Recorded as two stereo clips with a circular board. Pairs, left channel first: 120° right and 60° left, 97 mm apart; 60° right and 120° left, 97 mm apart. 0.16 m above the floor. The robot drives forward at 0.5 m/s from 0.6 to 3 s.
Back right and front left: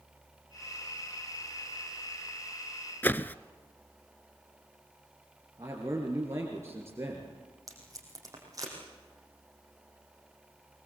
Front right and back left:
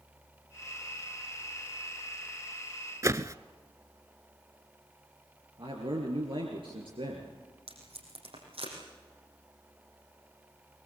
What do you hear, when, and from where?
3.0 s a whoosh: 170° left, 0.6 m
5.6 s a man speaking: 120° left, 3.5 m
7.7 s tape being pulled: 115° left, 5.5 m